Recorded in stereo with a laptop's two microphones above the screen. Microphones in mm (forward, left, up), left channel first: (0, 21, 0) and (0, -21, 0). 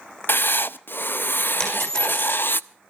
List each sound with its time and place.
0.3 s writing: 55° left (ahead or behind), 0.5 m
1.6 s a dropped coin: 15° left (ahead or behind), 5.5 m